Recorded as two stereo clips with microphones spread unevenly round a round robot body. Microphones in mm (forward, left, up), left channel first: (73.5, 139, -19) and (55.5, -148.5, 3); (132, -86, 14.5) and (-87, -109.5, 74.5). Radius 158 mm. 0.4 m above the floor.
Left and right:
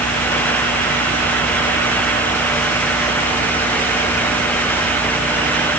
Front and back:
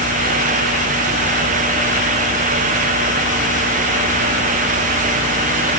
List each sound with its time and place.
Only background noise.